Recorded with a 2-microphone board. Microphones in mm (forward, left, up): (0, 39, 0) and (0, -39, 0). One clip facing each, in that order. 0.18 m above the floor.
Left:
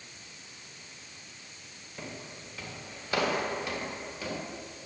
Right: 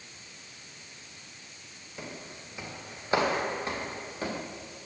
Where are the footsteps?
10° right (ahead or behind), 2.5 m; by 4.4 s 40° right (ahead or behind), 4 m.